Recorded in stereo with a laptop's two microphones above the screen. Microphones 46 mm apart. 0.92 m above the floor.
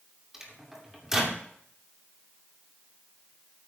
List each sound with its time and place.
0.3 s a microwave: 15° right (ahead or behind), 2.5 m